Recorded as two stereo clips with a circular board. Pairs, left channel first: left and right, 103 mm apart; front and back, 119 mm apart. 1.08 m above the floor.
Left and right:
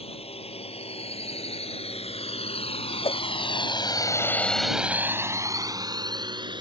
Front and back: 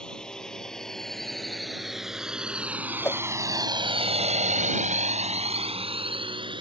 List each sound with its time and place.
0.0 s a drone: 85° left; by 6.6 s 130° right
3.0 s a whoosh: 70° left